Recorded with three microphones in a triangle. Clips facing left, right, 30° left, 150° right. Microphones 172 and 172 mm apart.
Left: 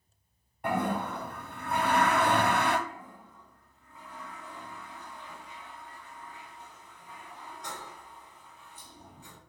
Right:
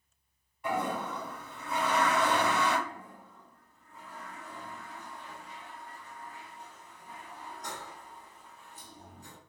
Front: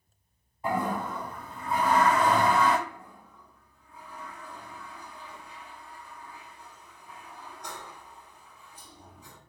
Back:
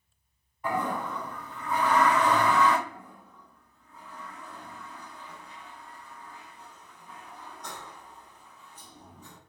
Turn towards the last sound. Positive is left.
turn(degrees=-50)